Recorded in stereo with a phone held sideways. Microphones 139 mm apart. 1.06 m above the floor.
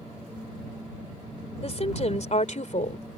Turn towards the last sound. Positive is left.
turn(degrees=65)  # may be behind; listen again after turning